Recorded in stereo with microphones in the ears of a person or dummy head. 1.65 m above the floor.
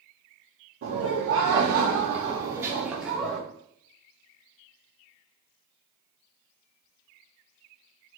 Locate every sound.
0.8 s laughter: 85° right, 0.9 m; by 3.4 s centre (ahead or behind), 1.1 m